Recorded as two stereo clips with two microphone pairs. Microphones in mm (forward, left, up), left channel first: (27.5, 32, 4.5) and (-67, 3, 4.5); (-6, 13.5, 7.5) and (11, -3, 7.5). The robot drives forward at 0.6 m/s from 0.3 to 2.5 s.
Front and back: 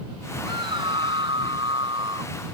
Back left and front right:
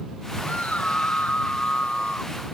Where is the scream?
155° left.